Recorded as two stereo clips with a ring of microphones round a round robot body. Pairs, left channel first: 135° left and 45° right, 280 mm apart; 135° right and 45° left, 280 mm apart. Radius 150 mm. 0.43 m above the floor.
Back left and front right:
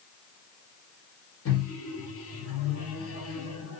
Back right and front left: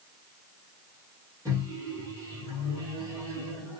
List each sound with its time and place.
1.4 s a microwave: 120° left, 1.5 m